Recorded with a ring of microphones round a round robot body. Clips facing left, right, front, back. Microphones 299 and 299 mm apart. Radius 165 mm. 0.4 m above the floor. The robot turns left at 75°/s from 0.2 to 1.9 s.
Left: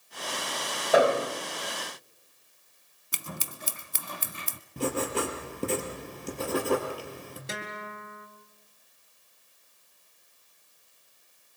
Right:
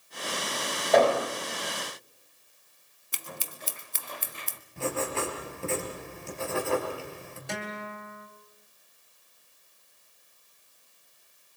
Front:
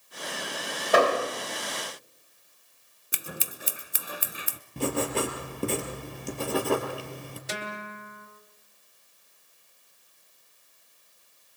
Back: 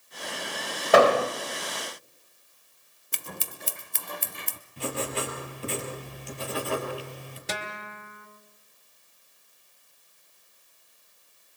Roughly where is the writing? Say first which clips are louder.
Left 2 dB, front 5 dB; ahead left.